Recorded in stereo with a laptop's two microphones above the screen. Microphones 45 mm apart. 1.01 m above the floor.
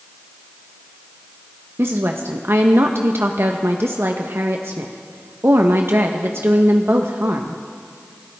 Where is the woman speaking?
65° right (ahead or behind), 0.8 m.